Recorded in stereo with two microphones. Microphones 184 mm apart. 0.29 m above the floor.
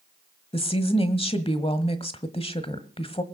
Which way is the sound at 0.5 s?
35° left (ahead or behind).